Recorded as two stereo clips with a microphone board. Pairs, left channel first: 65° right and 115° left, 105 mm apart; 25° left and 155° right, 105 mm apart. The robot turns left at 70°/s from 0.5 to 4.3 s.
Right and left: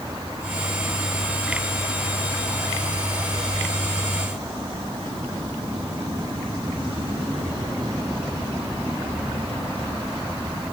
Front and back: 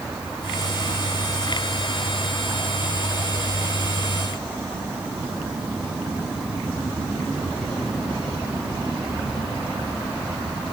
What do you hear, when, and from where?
Only background noise.